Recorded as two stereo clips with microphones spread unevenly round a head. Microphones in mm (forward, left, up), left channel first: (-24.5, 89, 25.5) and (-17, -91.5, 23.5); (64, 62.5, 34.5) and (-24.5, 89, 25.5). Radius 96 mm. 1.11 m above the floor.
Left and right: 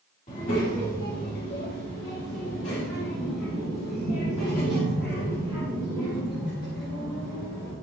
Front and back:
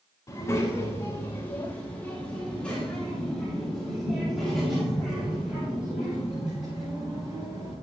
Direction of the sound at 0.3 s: 35° left.